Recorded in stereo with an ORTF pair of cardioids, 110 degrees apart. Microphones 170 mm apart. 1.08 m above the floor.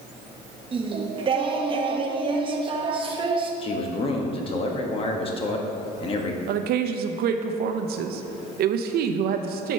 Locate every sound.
0.7 s singing: 30° right, 0.8 m
3.6 s a man speaking: 35° left, 1.2 m
6.5 s a woman speaking: 70° right, 0.6 m